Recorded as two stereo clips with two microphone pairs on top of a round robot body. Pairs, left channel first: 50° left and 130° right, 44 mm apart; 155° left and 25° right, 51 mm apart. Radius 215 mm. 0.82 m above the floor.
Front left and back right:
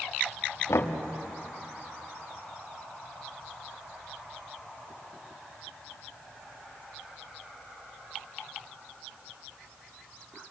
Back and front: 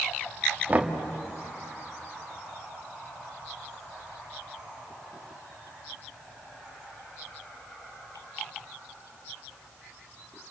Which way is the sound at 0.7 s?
35° left.